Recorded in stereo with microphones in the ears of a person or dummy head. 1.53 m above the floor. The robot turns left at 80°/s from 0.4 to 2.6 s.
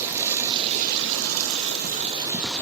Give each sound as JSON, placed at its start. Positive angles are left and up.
{"t": 0.0, "sound": "running water", "azimuth_deg": -10, "distance_m": 2.5}